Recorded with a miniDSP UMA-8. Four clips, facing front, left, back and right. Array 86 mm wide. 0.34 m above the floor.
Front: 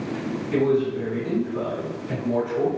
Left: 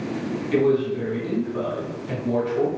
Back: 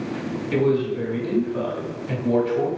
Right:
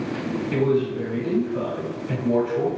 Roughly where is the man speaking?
Behind.